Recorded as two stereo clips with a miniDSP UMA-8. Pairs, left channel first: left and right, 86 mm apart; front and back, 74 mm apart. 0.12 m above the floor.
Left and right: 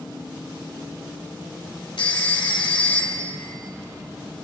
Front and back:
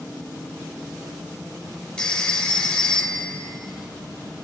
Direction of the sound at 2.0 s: 80° left.